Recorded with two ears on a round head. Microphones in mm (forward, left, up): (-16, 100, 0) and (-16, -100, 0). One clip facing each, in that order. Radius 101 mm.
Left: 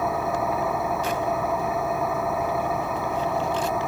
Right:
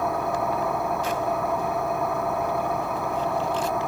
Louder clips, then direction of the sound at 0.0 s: Even; centre (ahead or behind).